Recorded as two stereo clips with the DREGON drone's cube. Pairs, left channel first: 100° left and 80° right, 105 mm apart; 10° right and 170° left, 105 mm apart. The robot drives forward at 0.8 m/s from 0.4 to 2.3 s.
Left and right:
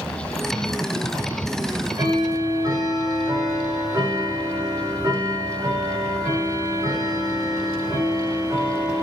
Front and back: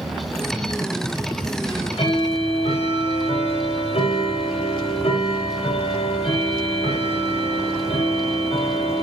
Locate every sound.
1.6 s ticking: 15° right, 6.5 m; by 9.0 s 20° right, 6 m